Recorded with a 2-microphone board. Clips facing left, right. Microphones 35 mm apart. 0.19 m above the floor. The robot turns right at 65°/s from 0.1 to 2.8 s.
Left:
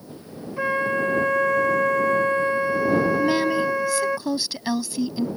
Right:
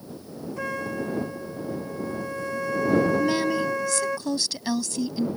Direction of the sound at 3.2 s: 15° left (ahead or behind).